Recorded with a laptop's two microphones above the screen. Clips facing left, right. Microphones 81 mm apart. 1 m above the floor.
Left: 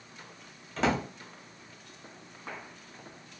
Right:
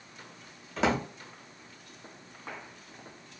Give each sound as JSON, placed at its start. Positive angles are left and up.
{"t": 0.8, "sound": "a drawer", "side_deg": -5, "distance_m": 0.7}